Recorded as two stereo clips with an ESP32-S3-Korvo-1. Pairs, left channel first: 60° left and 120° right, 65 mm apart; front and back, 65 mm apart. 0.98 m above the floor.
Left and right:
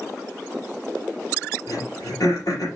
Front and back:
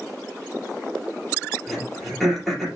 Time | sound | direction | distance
1.7 | throat clearing | 85° left | 4 m